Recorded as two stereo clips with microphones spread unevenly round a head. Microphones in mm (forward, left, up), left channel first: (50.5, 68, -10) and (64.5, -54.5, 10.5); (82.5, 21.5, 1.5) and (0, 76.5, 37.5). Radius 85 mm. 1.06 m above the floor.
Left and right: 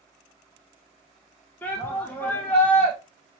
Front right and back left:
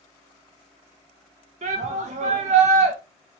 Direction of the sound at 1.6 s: 170° left.